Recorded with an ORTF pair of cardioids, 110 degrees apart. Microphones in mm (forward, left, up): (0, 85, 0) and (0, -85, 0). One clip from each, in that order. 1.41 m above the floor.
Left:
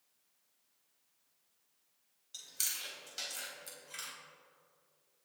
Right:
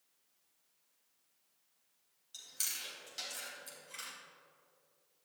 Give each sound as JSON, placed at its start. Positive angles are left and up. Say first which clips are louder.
{"t": 2.3, "sound": "chewing", "louder": "left 1 dB", "azimuth_deg": 15, "distance_m": 4.0}